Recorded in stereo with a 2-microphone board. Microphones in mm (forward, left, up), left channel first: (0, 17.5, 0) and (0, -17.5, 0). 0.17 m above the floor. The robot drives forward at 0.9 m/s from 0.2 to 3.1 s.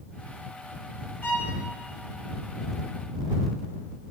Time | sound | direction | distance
1.2 | a violin | 80° left | 9.5 m